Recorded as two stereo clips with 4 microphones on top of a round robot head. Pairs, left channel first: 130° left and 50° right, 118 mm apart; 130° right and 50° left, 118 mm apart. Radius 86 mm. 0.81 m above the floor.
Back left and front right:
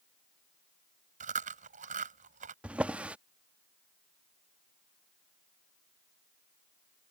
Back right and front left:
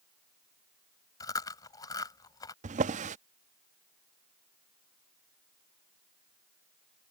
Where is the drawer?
30° left.